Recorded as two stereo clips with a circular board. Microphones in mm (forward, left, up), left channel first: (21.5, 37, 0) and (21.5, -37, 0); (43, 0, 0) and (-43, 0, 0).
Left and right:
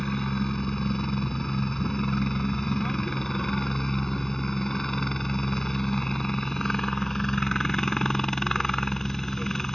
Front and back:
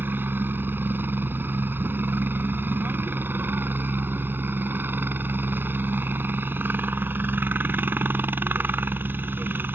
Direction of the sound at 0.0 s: 165° left.